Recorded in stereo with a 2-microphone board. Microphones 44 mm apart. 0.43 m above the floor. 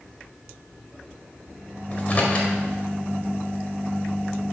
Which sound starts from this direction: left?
A microwave, at 1.9 s.